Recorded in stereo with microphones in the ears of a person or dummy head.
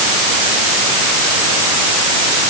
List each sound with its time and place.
Only background noise.